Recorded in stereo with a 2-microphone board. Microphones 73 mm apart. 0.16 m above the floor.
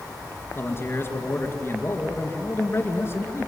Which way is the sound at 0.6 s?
35° left (ahead or behind).